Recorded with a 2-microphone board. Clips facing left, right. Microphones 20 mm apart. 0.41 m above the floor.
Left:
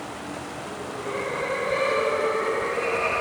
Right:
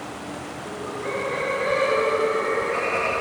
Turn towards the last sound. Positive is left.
turn(degrees=-25)  # may be behind; listen again after turning